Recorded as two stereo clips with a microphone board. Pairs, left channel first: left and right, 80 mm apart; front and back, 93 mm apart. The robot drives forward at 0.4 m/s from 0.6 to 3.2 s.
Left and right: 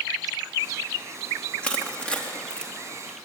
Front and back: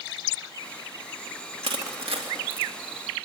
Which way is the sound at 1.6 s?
165° left.